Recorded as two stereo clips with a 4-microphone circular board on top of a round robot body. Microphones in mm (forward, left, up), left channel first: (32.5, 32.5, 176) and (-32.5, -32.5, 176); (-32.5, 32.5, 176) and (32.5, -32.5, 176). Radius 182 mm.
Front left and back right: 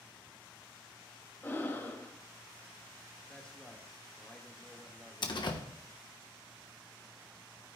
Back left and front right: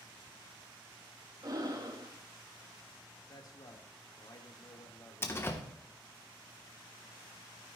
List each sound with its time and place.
1.4 s breathing: 15° right, 1.5 m
3.3 s a man speaking: 120° left, 1.7 m
5.2 s a door slam: 75° left, 1.3 m